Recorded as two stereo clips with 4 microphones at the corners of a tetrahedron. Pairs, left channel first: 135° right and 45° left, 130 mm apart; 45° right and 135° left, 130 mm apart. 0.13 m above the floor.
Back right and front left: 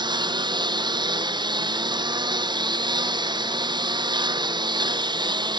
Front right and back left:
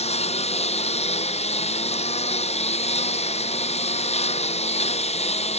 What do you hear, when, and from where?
0.0 s a lawn mower: 10° right